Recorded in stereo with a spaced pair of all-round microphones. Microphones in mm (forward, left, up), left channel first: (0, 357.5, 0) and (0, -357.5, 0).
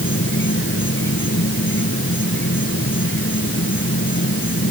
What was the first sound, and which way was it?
An insect, 15° left (ahead or behind).